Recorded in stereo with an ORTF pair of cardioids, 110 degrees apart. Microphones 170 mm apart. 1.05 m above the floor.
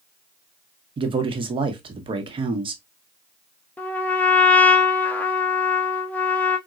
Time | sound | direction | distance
1.0 | a man speaking | 30° right | 0.9 m
3.8 | a trumpet | 10° left | 0.6 m